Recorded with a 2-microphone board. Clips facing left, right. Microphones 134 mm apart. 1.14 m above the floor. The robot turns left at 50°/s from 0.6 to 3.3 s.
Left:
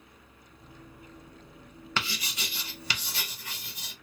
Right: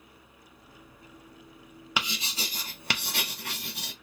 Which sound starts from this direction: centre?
Writing, at 2.0 s.